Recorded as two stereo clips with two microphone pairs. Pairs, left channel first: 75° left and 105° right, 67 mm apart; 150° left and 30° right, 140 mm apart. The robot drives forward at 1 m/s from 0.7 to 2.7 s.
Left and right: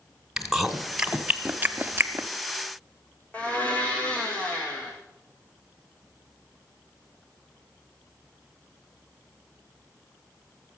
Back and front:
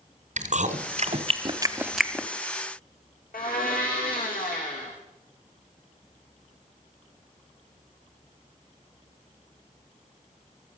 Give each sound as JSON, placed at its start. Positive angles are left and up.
{"t": 0.4, "sound": "chewing", "azimuth_deg": -20, "distance_m": 1.3}
{"t": 3.3, "sound": "a blender", "azimuth_deg": 145, "distance_m": 3.0}